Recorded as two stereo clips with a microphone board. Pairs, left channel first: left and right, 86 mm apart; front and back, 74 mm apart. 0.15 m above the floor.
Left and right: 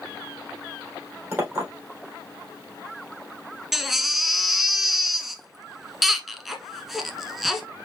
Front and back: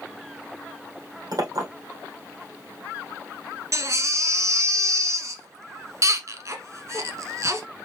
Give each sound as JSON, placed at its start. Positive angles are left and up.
{"t": 1.3, "sound": "a clink", "azimuth_deg": -155, "distance_m": 3.5}
{"t": 3.7, "sound": "a baby crying", "azimuth_deg": -175, "distance_m": 1.0}